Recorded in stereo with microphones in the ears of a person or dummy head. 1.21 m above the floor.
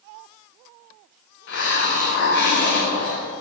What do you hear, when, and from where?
1.5 s a hiss: 45° left (ahead or behind), 0.7 m